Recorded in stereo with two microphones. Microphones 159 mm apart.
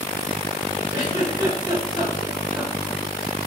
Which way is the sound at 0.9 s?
25° right (ahead or behind).